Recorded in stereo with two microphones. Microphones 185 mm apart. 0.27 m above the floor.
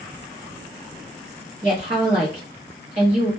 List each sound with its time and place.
1.6 s a woman speaking: 40° right (ahead or behind), 1.2 m